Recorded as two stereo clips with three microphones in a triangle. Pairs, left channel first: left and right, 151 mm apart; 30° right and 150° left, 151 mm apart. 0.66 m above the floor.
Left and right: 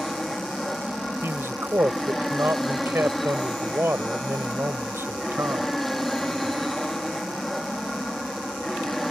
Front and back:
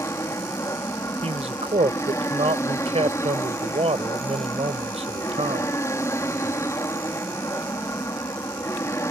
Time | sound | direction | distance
0.0 | an aircraft | 5° left | ?
1.2 | a man speaking | 165° right | ?